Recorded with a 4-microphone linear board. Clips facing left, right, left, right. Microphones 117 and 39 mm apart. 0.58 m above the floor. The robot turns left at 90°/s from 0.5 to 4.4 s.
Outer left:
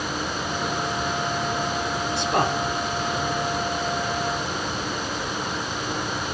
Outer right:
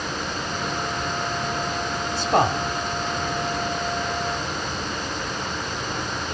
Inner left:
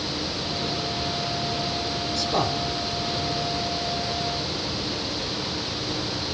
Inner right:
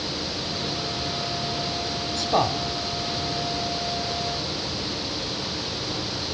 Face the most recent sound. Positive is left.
turn(degrees=30)